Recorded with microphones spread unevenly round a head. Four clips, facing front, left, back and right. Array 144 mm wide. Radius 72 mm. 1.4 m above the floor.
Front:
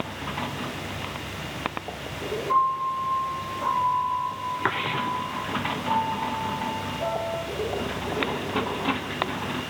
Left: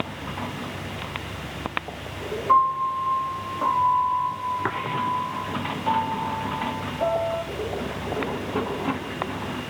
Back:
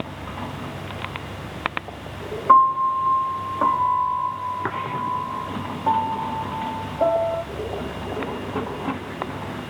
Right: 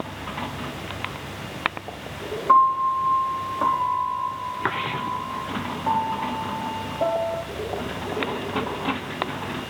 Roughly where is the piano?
Behind.